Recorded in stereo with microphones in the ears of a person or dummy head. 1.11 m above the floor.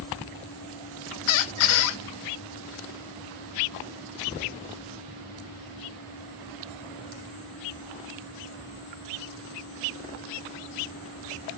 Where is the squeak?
75° left (ahead or behind), 0.5 m.